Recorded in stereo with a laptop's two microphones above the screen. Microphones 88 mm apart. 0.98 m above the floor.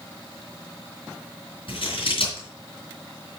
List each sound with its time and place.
1.7 s scissors: 70° left (ahead or behind), 3.5 m